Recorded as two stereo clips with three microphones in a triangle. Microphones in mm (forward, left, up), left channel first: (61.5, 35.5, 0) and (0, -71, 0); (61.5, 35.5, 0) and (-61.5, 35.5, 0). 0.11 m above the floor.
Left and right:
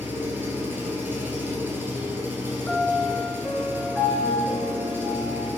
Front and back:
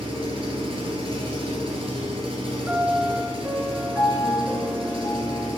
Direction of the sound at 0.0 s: 175° left.